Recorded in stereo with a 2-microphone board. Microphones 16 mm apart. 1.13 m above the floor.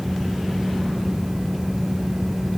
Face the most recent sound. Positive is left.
No sound to turn to.